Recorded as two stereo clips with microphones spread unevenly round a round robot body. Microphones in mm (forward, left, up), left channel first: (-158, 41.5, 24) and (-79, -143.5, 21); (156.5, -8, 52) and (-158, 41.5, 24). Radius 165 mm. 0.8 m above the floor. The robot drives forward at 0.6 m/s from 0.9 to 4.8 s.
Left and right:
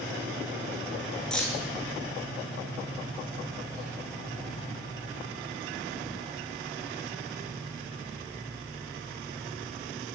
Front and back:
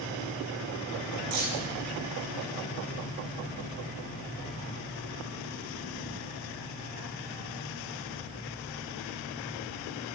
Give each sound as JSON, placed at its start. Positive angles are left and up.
{"t": 1.3, "sound": "keys jangling", "azimuth_deg": -160, "distance_m": 7.0}